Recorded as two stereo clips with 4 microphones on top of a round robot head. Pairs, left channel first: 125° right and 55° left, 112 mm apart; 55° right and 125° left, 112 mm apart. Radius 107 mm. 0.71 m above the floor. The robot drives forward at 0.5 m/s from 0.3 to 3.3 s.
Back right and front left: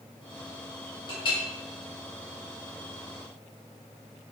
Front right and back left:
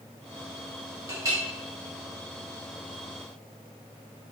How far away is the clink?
About 1.6 m.